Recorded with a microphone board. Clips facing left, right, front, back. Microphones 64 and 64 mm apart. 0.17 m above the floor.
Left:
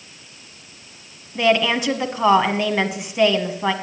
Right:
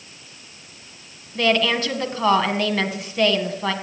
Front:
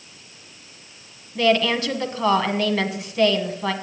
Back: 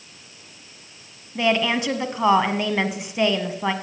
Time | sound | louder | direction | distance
1.4 | a woman speaking | left 2 dB, front 2 dB | 140° left | 1.0 m